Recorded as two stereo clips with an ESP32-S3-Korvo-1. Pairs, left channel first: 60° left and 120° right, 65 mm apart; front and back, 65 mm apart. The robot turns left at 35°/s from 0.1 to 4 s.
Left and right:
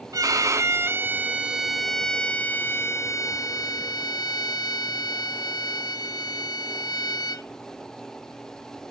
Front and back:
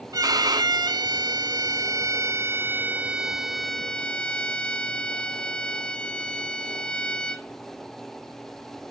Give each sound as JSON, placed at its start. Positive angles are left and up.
{"t": 0.1, "sound": "a violin", "azimuth_deg": -150, "distance_m": 0.8}